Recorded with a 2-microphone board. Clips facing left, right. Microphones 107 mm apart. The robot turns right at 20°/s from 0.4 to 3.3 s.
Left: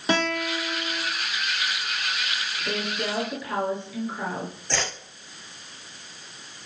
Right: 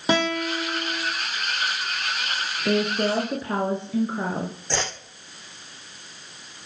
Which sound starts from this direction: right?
A woman speaking, at 2.6 s.